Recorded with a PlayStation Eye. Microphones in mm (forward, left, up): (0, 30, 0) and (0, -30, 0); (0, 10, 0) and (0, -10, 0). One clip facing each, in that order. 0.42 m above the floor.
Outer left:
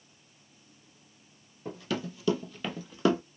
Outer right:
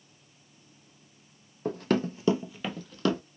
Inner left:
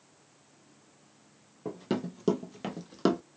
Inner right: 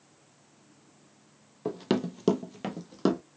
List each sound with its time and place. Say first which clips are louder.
1.6 s running footsteps: outer right 7 dB, inner right 4 dB; 60° right (ahead or behind), 0.7 m; by 3.2 s 20° left (ahead or behind), 0.9 m